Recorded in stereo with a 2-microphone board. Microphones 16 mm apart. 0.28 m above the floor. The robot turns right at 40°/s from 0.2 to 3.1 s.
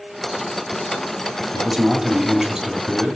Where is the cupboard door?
No cupboard door in this recording.